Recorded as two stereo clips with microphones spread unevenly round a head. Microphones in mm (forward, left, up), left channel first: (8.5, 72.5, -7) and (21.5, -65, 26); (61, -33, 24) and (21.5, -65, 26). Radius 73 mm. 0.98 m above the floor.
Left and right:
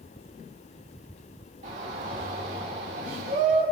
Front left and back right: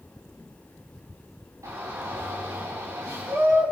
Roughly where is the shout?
Behind right.